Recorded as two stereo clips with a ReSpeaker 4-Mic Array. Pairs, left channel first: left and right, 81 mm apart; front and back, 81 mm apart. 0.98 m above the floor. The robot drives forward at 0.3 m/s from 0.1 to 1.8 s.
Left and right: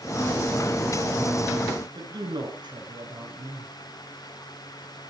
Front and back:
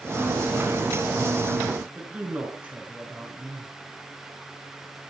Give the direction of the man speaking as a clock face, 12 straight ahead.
4 o'clock.